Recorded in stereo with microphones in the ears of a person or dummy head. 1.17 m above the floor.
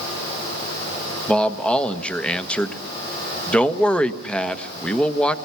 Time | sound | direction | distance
1.3 | a man speaking | 5° left (ahead or behind) | 1.3 m